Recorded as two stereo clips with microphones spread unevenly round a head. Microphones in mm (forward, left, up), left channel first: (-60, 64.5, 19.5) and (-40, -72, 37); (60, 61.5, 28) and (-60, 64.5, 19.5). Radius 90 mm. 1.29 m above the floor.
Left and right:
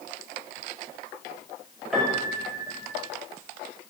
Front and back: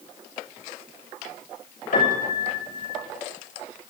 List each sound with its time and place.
1.9 s a piano: 10° left, 6.5 m